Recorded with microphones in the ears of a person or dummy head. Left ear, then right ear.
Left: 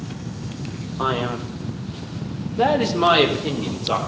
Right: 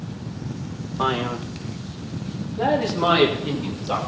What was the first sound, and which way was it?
A man speaking, 5° right (ahead or behind).